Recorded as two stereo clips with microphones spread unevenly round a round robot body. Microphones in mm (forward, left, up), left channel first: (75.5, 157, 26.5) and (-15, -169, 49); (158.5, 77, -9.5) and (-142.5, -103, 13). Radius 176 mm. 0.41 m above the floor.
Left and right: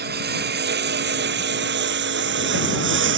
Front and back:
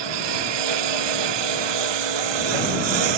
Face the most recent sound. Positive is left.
turn(degrees=-165)